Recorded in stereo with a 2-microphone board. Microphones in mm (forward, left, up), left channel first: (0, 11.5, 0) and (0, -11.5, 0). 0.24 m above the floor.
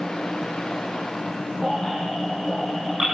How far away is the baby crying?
About 8 m.